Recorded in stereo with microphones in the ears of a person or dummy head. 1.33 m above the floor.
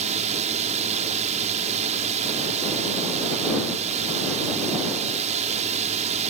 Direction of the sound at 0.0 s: 40° right (ahead or behind).